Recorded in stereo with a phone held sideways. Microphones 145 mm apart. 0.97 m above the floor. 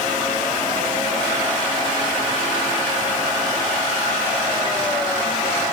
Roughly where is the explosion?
No explosion in this recording.